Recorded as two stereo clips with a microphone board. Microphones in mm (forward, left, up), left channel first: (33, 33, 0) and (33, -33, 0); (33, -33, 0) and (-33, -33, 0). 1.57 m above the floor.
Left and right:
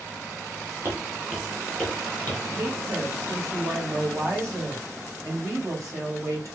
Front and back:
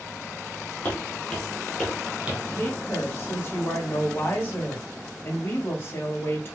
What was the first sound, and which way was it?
Footsteps, 55° right.